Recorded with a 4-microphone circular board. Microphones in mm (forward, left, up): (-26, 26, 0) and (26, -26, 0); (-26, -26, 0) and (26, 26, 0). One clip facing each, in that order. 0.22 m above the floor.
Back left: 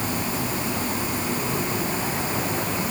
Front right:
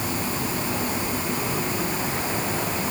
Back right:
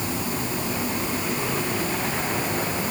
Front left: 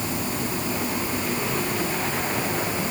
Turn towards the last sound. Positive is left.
No sound to turn to.